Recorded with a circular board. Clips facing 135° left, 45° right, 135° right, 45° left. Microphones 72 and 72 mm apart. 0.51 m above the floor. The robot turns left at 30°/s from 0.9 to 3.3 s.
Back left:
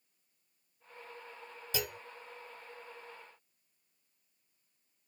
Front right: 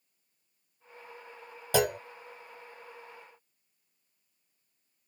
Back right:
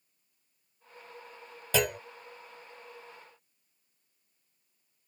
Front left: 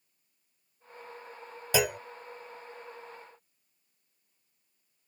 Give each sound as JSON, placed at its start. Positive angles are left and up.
{"t": 1.7, "sound": "a clunk", "azimuth_deg": -35}